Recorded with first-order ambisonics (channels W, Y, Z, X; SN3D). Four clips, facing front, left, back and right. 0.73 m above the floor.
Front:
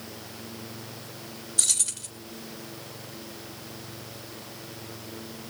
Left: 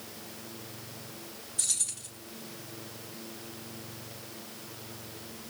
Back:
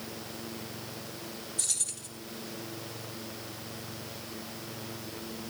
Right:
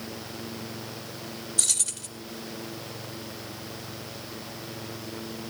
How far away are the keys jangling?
About 1.7 m.